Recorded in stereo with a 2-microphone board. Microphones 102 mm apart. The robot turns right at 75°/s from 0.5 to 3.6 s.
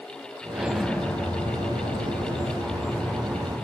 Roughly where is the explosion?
Ahead.